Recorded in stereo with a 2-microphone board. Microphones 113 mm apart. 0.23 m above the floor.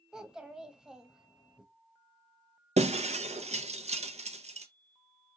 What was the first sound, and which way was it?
A child speaking, 5° right (ahead or behind).